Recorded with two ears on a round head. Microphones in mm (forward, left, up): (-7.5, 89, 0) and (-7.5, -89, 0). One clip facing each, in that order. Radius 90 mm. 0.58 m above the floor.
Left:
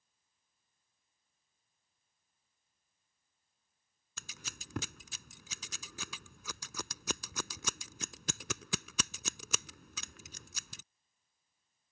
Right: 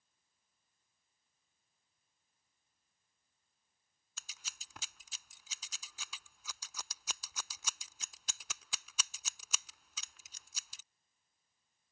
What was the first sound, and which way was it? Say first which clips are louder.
Scissors: left 8 dB; 50° left (ahead or behind).